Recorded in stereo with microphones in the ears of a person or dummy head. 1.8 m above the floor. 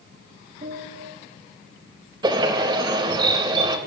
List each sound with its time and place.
0.6 s a piano: 45° right (ahead or behind), 8 m
2.2 s a bird: 30° right (ahead or behind), 3.5 m